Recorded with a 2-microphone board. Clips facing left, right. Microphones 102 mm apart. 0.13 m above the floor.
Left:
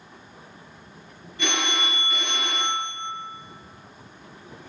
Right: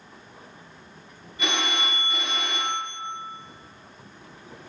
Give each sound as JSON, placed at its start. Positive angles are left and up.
{"t": 1.4, "sound": "a phone ringing", "side_deg": -20, "distance_m": 1.5}